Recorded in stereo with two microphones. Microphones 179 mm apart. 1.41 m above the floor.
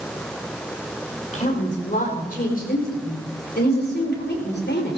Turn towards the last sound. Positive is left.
turn(degrees=75)  # may be behind; listen again after turning